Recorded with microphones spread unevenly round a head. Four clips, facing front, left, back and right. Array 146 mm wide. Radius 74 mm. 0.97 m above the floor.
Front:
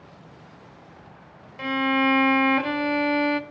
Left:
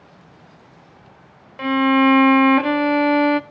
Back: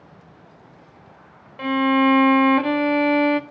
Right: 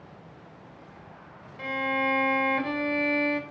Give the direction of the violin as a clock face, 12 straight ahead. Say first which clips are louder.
Left 13 dB, back 5 dB; 8 o'clock.